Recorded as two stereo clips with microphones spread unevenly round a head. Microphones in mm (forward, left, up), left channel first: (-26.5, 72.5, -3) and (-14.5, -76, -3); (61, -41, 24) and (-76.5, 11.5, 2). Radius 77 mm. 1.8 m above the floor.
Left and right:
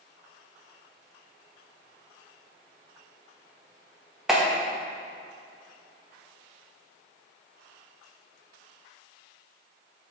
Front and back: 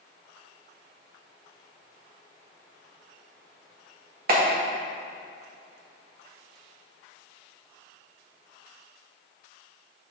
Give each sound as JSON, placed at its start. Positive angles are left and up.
{"t": 4.3, "sound": "a clap", "azimuth_deg": -175, "distance_m": 1.5}